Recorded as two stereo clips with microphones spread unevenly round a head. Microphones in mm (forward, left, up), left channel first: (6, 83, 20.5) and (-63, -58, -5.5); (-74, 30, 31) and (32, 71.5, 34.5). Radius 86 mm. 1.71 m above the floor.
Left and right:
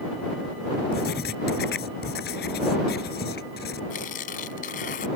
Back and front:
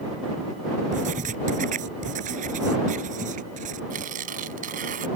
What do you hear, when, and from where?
0.9 s writing: 25° left
3.9 s tearing paper: 15° left